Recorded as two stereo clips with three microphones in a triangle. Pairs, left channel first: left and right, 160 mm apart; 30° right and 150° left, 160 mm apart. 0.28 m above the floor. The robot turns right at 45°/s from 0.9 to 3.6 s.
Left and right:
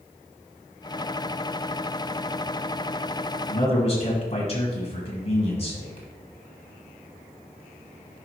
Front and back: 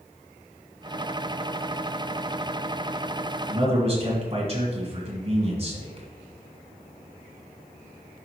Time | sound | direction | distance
3.5 | a man speaking | 110° left | 1.6 m